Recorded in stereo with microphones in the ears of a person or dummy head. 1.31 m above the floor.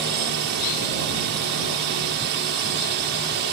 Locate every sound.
0.0 s a drone: 50° right (ahead or behind)